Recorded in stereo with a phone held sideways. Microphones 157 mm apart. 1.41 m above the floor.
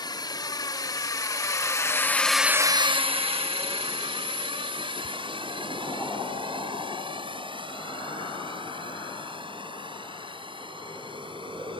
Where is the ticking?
35° left (ahead or behind).